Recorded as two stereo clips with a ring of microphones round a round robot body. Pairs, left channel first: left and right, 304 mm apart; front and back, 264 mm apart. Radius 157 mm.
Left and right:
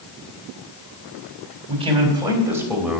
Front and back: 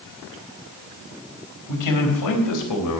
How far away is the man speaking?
About 4 m.